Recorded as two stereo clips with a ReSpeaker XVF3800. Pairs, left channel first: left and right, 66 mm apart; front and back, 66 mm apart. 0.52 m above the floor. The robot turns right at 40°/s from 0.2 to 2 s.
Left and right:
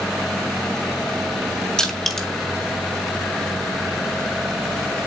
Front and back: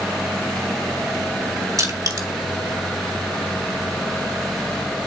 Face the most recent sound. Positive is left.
turn(degrees=175)